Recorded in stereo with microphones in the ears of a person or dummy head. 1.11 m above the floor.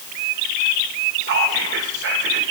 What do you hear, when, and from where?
1.2 s whispering: 50° right (ahead or behind), 1.5 m